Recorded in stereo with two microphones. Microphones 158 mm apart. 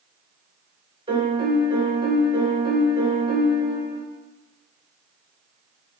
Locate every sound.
1.1 s a piano: 35° right (ahead or behind), 1.0 m